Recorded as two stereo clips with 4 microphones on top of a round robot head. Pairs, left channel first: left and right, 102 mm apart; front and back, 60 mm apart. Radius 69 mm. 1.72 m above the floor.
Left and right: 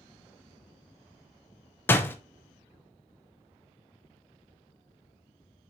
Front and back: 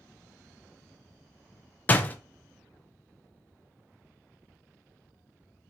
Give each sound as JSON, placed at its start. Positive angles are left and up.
{"t": 1.9, "sound": "a door slam", "azimuth_deg": 35, "distance_m": 0.8}